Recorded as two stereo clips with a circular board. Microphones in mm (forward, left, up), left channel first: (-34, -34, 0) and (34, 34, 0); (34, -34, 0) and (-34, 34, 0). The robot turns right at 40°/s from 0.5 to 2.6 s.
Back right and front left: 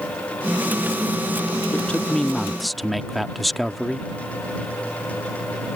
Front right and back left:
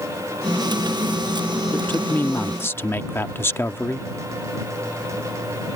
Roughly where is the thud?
I don't hear a thud.